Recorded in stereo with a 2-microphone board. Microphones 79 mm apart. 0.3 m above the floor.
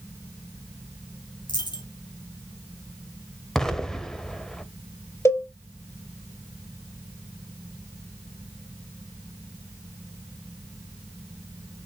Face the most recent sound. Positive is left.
turn(degrees=35)  # may be behind; listen again after turning